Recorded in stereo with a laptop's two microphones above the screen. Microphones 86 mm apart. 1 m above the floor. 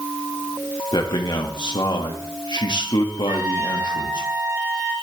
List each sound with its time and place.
0.9 s a man speaking: 65° left (ahead or behind), 1.8 m
3.3 s a trumpet: 40° right (ahead or behind), 3.5 m